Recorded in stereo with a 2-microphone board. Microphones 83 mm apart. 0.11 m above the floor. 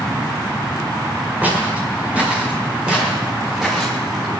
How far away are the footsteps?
About 7 m.